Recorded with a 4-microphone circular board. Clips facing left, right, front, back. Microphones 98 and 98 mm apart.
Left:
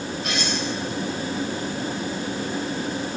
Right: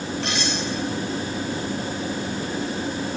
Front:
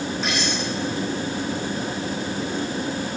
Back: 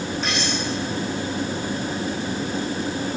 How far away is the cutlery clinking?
About 9.5 m.